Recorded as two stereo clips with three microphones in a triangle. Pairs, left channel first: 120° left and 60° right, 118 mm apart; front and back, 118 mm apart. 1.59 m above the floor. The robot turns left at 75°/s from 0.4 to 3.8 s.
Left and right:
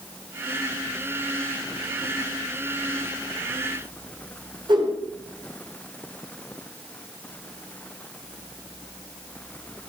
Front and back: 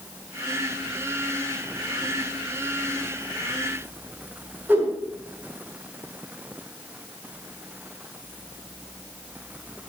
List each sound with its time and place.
4.7 s a whoosh: 105° right, 5.5 m